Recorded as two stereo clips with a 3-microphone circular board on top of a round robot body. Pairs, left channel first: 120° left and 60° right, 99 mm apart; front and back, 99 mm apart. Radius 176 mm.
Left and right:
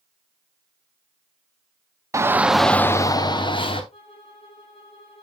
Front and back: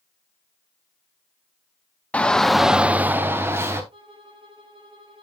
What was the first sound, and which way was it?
A shout, 65° right.